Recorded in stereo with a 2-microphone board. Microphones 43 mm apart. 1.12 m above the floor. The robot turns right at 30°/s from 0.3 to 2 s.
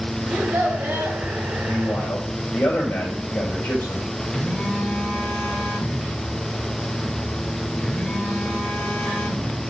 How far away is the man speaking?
About 5 m.